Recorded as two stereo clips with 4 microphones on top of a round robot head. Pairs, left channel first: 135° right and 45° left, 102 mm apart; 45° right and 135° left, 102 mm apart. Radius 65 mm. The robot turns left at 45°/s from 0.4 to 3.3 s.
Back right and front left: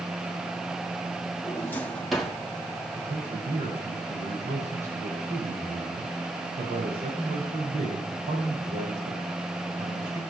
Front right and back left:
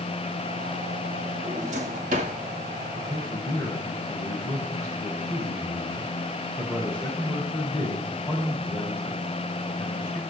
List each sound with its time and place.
1.4 s a drawer: 165° left, 1.7 m; by 2.4 s 125° left, 1.7 m
3.0 s a man speaking: 45° left, 4.5 m; by 10.2 s 30° left, 4.5 m